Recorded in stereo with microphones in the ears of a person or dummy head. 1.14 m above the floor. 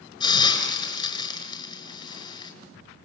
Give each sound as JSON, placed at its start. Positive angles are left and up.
{"t": 0.2, "sound": "a hiss", "side_deg": 25, "distance_m": 6.0}